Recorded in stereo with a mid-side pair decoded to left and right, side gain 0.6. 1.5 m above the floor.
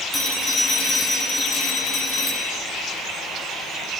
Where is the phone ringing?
25° left, 9 m.